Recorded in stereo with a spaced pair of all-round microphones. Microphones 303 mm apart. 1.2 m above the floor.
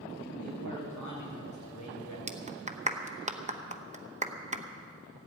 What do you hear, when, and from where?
0.2 s a man speaking: 85° left, 6 m; by 2.2 s 70° left (ahead or behind), 5 m
2.3 s a clap: 25° right (ahead or behind), 0.9 m